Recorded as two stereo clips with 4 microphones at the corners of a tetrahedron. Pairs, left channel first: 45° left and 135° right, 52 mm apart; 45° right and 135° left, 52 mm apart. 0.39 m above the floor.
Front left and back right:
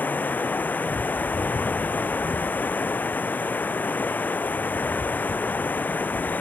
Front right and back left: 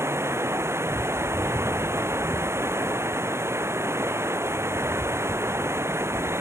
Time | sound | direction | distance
0.0 | running water | 100° left | ?